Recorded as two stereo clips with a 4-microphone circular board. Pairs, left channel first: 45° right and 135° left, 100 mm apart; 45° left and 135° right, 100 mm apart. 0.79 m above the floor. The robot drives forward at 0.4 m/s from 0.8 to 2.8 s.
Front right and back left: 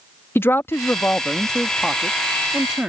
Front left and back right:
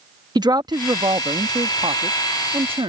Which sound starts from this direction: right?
A man speaking, at 0.3 s.